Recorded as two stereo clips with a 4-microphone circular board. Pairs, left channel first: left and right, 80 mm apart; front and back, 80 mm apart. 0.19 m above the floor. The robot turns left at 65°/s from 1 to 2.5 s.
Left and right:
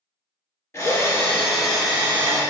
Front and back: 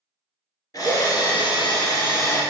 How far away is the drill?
About 2.5 m.